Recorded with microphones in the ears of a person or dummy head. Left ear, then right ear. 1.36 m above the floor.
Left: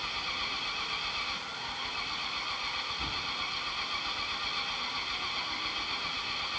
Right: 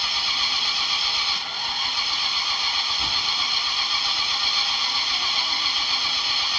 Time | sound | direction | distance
0.0 | an engine running | 55° right (ahead or behind) | ?